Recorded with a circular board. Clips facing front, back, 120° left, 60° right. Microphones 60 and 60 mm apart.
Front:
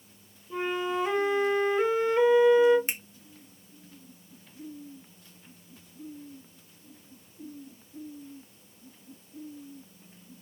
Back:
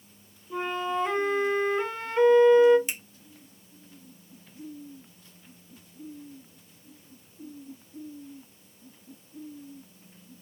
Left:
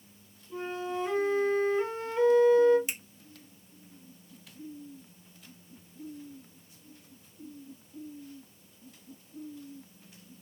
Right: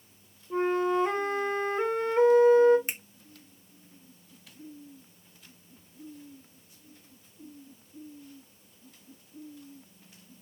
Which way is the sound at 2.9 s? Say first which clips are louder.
Front 2 dB, right 2 dB; 30° right.